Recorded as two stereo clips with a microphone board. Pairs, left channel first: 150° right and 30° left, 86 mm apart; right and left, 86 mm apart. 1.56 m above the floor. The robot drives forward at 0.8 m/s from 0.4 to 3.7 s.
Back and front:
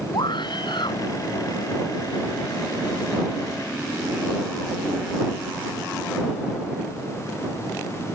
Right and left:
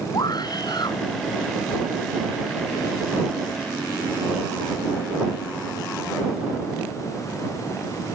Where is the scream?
125° right; by 1.0 s 130° right.